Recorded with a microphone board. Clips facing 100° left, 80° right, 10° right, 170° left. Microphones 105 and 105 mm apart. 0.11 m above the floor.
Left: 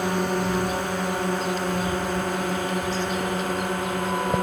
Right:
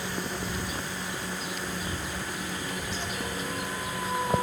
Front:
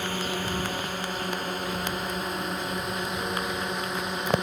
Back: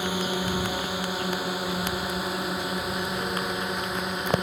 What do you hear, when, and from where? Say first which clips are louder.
0.0 s a drone: left 10 dB, back 3 dB; 95° left; by 4.4 s 80° left